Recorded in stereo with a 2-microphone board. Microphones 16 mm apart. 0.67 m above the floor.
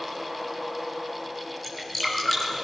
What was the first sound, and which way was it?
Dripping, 10° left (ahead or behind).